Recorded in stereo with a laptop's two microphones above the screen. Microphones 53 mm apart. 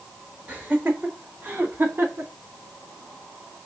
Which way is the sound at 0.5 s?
25° right (ahead or behind).